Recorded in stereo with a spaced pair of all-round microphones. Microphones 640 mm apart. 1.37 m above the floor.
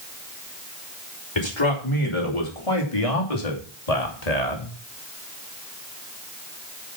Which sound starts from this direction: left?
A man speaking, at 1.4 s.